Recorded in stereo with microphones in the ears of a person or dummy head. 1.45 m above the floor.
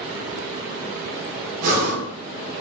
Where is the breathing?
45° right (ahead or behind), 1.1 m.